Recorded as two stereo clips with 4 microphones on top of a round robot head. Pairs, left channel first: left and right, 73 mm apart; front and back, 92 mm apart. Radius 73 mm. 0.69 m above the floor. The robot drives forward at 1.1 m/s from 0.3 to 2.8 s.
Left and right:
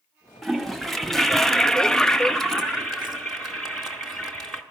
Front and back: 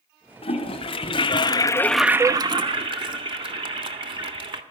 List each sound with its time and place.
0.4 s a toilet flushing: straight ahead, 1.8 m; by 4.6 s 175° left, 1.0 m